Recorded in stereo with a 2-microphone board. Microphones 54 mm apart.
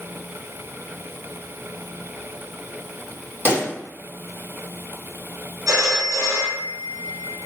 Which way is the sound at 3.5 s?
35° right (ahead or behind).